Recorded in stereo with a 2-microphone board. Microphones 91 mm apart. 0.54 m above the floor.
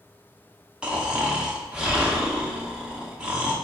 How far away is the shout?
I don't hear a shout.